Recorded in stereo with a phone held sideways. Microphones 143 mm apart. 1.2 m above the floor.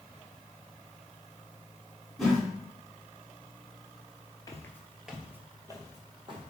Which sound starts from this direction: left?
Footsteps, at 4.5 s.